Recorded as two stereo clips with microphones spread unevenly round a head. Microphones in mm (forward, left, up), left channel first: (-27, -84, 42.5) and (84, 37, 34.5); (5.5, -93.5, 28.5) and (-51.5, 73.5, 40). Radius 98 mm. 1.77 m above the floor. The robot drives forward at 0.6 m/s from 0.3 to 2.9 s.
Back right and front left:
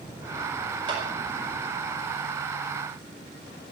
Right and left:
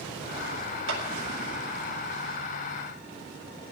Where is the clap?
115° left, 4 m.